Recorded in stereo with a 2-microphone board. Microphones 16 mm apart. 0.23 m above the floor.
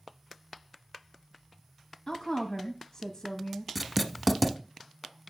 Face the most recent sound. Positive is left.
turn(degrees=0)  # may be behind; listen again after turning